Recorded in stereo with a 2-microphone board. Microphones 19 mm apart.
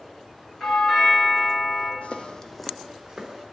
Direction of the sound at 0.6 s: 25° left (ahead or behind).